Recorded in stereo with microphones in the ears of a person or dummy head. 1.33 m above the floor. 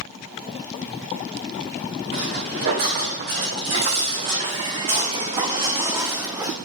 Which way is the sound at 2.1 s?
60° right (ahead or behind).